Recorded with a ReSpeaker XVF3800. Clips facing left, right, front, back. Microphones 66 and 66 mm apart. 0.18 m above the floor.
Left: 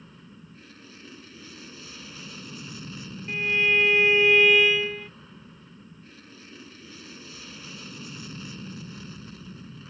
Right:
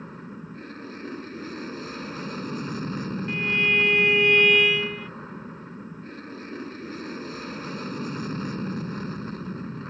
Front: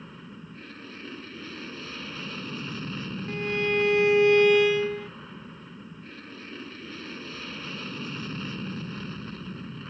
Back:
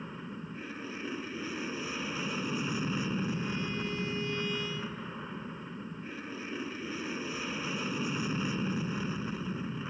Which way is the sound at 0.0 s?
105° right.